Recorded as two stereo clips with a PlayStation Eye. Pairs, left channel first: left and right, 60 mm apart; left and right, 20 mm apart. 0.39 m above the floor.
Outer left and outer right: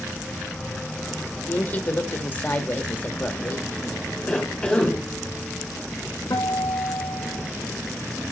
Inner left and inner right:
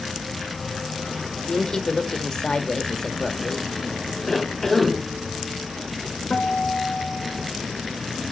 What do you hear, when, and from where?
1.5 s a woman speaking: 30° left (ahead or behind), 1.6 m
4.3 s a cough: 15° left (ahead or behind), 1.1 m
6.3 s a guitar: 85° left, 3 m